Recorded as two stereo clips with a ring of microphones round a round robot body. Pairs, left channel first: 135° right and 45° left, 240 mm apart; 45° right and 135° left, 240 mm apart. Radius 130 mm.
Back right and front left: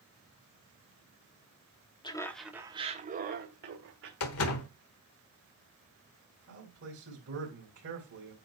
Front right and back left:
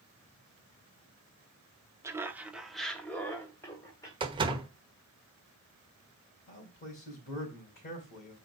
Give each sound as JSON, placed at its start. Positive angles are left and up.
{"t": 2.0, "sound": "laughter", "azimuth_deg": -170, "distance_m": 1.1}
{"t": 4.2, "sound": "a door slam", "azimuth_deg": -155, "distance_m": 1.2}
{"t": 6.5, "sound": "a man speaking", "azimuth_deg": 10, "distance_m": 3.5}